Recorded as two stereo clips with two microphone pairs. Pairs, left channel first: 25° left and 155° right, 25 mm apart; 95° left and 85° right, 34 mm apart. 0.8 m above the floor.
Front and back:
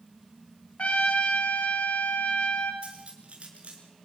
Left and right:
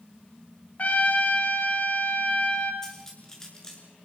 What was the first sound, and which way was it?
A trumpet, 50° left.